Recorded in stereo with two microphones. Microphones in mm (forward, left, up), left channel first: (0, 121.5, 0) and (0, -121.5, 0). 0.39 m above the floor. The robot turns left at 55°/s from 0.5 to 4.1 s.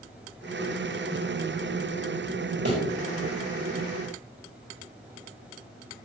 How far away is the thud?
About 4.5 m.